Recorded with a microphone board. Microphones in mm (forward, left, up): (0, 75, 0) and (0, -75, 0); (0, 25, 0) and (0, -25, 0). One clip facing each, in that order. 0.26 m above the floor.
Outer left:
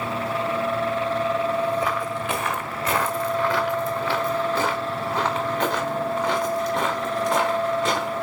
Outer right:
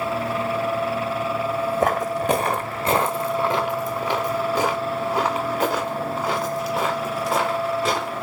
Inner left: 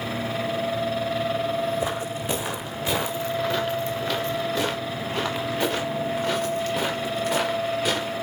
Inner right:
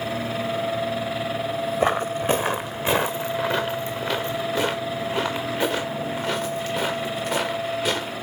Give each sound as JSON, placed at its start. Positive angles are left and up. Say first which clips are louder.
{"t": 1.8, "sound": "footsteps", "louder": "outer right 5 dB, inner right 6 dB", "side_deg": -50, "distance_m": 1.1}